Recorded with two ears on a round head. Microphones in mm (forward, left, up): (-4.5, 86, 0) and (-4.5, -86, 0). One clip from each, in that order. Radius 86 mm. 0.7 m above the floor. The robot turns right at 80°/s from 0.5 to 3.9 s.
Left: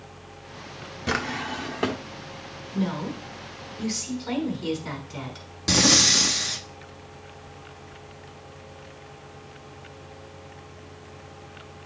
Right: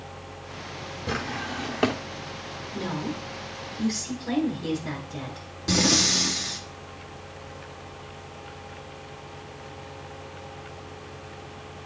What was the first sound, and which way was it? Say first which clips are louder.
A drawer: left 4 dB; 140° left.